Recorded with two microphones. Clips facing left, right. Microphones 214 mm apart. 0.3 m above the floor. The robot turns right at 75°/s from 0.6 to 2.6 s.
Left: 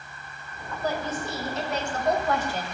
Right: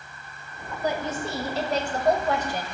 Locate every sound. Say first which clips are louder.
0.8 s a woman speaking: right 2 dB; 155° right, 1.2 m; by 2.6 s 25° right, 1.2 m